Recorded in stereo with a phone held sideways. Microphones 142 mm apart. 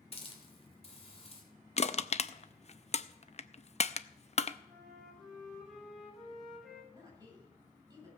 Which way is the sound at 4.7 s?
Centre (ahead or behind).